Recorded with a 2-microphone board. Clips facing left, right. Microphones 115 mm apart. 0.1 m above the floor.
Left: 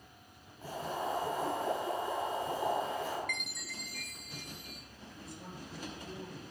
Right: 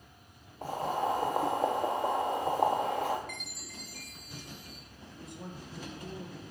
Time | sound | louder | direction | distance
0.6 | boiling | right 6 dB | 55° right (ahead or behind) | 1.9 m
3.3 | a chime | left 2 dB | 35° right (ahead or behind) | 1.3 m
5.1 | a man speaking | right 3 dB | 20° right (ahead or behind) | 2.5 m